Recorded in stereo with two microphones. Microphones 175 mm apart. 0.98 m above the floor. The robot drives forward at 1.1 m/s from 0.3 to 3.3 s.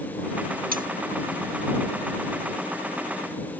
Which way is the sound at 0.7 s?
55° right (ahead or behind).